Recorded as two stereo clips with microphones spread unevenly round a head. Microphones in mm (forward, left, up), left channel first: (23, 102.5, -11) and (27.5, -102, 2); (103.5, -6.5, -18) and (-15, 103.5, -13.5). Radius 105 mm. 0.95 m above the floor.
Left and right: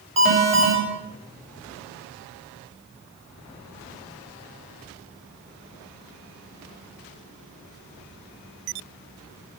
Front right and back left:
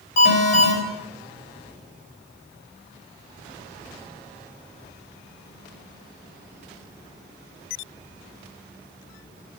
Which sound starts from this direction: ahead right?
An alarm, at 0.2 s.